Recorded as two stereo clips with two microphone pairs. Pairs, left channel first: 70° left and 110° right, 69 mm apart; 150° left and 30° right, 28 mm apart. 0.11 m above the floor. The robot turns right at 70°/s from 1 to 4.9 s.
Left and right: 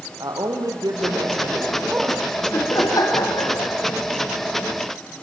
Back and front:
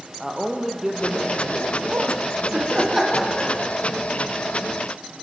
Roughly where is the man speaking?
Right.